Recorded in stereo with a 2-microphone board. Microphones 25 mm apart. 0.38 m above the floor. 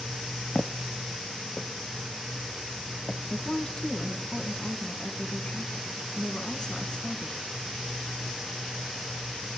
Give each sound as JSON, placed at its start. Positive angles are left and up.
{"t": 0.6, "sound": "footsteps", "side_deg": 35, "distance_m": 0.7}
{"t": 3.3, "sound": "a woman speaking", "side_deg": 30, "distance_m": 3.0}